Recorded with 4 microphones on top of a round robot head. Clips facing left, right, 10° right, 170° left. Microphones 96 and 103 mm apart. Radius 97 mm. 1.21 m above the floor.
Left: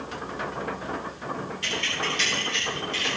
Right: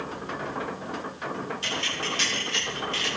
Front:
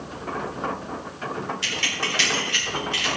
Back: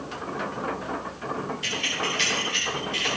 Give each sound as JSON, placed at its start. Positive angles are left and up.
{"t": 1.6, "sound": "keys jangling", "azimuth_deg": -25, "distance_m": 2.5}